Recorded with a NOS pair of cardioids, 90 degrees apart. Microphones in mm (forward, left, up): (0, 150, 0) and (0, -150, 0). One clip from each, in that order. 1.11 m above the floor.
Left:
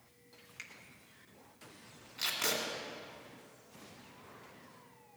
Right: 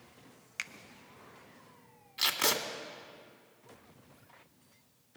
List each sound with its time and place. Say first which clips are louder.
0.6 s a finger snap: right 10 dB; 55° right, 0.5 m
2.2 s tape being pulled: right 5 dB; 45° right, 1.8 m